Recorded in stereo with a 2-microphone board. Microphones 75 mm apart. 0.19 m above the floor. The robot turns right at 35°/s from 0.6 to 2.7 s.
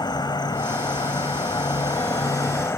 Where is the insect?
70° left, 1.2 m; by 2.8 s 145° left, 1.2 m.